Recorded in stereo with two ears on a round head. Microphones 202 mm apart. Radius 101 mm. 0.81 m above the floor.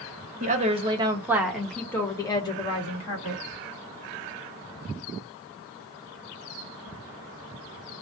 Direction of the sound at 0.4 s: 35° right (ahead or behind).